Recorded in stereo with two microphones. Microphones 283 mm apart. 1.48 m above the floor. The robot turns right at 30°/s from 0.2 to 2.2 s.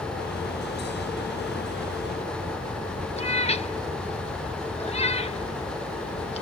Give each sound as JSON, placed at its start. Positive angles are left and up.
{"t": 3.2, "sound": "a cat meowing", "side_deg": 20, "distance_m": 0.7}